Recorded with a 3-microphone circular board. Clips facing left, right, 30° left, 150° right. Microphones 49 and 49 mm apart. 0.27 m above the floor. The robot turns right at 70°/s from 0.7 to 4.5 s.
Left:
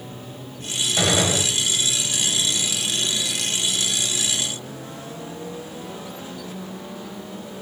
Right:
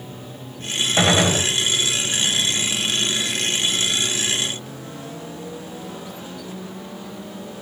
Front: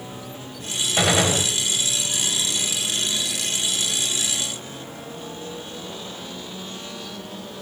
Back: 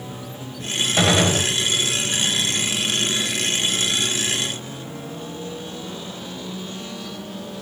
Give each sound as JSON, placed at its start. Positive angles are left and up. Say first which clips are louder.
{"t": 1.0, "sound": "a gunshot", "louder": "right 3 dB, back 2 dB", "azimuth_deg": -65, "distance_m": 1.8}